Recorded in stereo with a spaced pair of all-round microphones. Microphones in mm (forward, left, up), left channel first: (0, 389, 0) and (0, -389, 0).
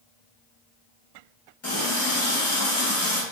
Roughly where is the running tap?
Left.